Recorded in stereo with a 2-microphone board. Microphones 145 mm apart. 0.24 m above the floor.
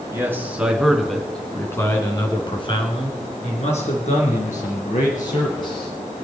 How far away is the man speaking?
About 3 m.